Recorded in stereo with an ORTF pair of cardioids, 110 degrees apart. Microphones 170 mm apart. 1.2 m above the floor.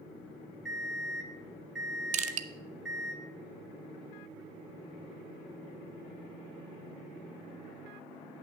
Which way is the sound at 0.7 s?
5° right.